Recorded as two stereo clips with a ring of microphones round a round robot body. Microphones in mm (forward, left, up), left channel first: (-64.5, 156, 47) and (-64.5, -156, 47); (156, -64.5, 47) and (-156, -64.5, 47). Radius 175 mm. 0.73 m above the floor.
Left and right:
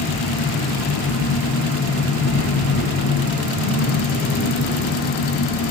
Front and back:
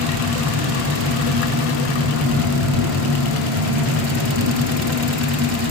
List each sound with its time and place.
0.0 s an engine running: 145° left, 10 m